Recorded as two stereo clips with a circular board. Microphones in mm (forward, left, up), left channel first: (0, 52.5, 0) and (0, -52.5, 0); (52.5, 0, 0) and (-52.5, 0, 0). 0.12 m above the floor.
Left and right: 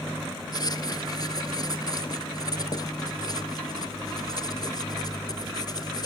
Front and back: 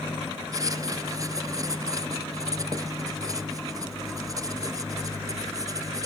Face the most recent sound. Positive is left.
turn(degrees=130)